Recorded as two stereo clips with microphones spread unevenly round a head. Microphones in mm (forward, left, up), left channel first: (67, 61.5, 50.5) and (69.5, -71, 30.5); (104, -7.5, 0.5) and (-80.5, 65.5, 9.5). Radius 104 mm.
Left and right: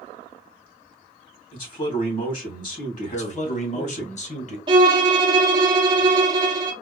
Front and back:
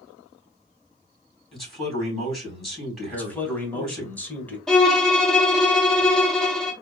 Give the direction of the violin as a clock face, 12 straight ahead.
4 o'clock.